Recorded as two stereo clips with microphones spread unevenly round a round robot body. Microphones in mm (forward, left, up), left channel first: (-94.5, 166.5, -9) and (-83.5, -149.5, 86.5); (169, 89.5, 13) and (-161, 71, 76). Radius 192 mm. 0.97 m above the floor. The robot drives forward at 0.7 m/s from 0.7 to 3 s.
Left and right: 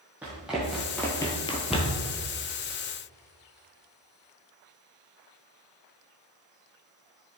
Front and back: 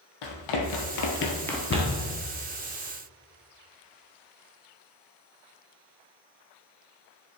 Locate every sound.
0.2 s running footsteps: 15° right, 1.8 m; by 2.1 s 175° left, 1.3 m
1.7 s a cupboard door: 20° left, 0.9 m; by 2.1 s 30° left, 0.8 m